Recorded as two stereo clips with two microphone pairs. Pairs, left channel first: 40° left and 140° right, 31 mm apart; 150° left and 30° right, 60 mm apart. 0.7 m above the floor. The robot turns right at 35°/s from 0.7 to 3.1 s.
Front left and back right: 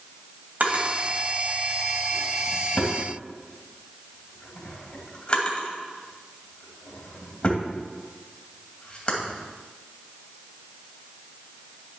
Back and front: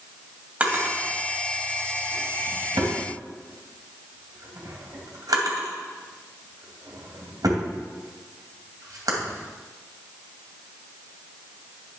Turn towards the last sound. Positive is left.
turn(degrees=-20)